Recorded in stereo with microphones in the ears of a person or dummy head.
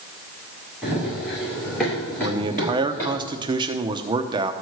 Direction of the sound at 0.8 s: Centre (ahead or behind).